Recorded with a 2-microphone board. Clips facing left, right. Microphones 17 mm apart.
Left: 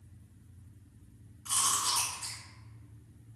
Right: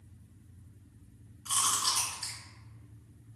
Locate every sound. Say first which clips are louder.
1.4 s chewing: right 1 dB; 70° right (ahead or behind), 2.0 m